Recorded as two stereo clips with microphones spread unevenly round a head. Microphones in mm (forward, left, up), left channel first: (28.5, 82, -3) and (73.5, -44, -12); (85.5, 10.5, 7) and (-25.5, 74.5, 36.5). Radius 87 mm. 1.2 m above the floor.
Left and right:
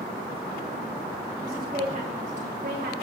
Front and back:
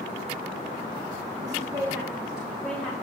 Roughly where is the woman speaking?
Behind right.